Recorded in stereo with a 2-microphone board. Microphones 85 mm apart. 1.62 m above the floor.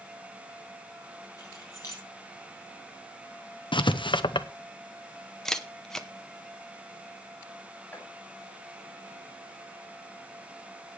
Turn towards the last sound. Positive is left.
turn(degrees=20)  # may be behind; listen again after turning